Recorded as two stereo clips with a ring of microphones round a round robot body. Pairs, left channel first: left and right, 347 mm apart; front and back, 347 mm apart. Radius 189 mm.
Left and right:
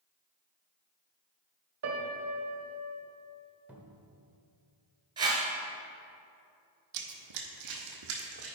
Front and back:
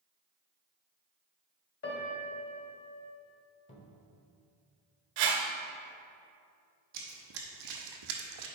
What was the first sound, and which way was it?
A piano, 55° right.